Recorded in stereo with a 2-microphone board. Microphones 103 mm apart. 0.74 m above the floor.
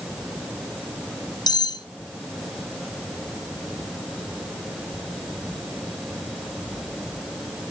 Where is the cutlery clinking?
45° left (ahead or behind), 0.8 m.